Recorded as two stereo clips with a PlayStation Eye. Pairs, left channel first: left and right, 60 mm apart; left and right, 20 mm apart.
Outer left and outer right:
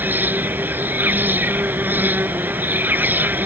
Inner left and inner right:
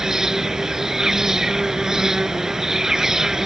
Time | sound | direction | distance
0.0 | an insect | 30° right (ahead or behind) | ?